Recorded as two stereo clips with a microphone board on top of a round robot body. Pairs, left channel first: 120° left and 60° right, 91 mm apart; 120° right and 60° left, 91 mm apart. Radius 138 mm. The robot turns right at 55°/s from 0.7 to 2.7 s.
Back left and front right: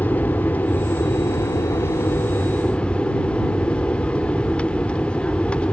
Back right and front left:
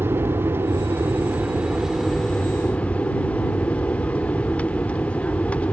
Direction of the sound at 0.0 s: 75° left.